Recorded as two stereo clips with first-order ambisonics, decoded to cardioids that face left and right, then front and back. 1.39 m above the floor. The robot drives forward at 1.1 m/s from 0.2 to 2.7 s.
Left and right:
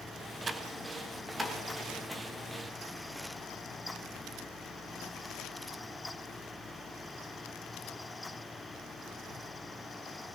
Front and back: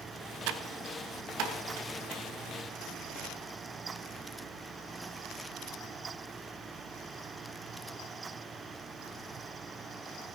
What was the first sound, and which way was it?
Typing on a keyboard, 160° right.